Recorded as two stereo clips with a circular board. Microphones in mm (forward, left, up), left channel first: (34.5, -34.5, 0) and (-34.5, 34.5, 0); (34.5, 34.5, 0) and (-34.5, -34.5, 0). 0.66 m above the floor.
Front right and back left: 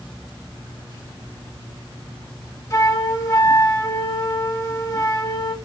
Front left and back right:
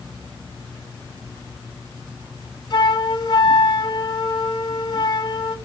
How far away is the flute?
About 2 m.